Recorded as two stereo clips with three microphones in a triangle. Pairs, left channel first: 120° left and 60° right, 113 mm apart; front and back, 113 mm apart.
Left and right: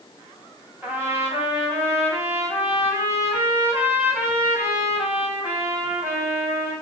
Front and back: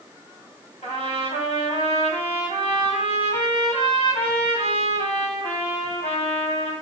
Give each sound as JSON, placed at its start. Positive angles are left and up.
{"t": 0.8, "sound": "a trumpet", "azimuth_deg": 10, "distance_m": 7.0}